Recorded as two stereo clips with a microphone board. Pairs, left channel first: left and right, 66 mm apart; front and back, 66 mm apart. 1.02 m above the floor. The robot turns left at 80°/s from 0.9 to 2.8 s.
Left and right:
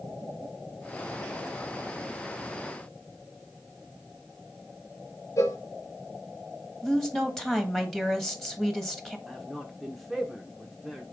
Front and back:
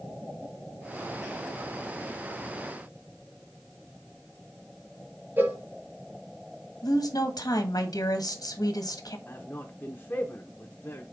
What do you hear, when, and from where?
5.4 s a cowbell: 120° left, 1.4 m
6.8 s a woman speaking: 5° left, 1.4 m
9.3 s a man speaking: 5° left, 0.9 m